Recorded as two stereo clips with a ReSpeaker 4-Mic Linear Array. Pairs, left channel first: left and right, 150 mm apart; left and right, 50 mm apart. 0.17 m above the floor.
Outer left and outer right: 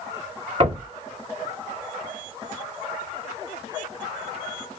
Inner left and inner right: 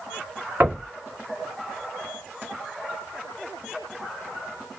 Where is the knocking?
45° right (ahead or behind), 1.9 m.